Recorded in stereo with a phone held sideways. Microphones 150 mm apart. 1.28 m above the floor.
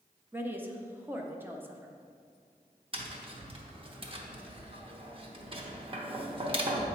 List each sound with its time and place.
0.3 s a woman speaking: 15° right (ahead or behind), 0.7 m
2.9 s tapping: 40° right (ahead or behind), 0.7 m